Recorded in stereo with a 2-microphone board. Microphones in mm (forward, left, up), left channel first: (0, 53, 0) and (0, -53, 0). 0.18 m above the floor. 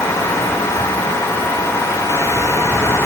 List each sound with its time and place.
Only background noise.